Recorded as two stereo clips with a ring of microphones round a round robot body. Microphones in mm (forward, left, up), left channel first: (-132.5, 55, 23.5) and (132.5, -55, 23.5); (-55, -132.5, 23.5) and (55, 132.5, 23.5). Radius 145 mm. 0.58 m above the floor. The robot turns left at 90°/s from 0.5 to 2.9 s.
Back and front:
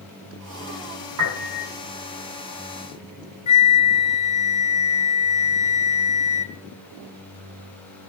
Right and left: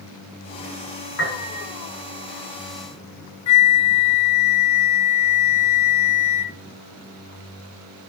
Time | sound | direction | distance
1.2 | a piano | 55° right | 5.5 m
3.5 | a flute | 135° right | 0.7 m